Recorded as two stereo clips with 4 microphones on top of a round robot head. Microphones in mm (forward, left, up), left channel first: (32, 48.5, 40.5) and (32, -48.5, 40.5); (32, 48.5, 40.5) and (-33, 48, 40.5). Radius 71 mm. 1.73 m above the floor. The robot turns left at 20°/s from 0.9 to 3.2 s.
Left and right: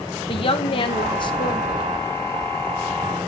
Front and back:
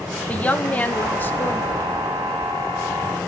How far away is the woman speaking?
About 0.9 m.